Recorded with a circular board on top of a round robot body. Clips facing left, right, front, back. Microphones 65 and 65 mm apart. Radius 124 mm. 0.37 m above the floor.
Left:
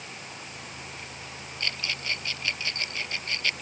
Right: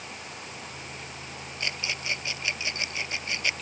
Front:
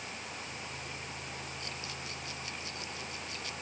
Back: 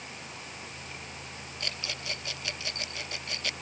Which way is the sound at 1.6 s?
165° right.